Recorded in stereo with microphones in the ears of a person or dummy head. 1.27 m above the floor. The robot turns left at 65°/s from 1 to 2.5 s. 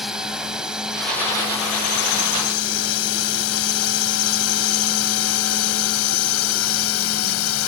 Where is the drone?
5° right (ahead or behind); by 7.7 s 80° left.